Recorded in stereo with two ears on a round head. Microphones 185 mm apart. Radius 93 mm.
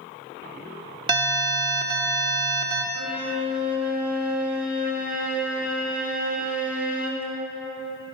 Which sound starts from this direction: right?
An alarm, at 1.1 s.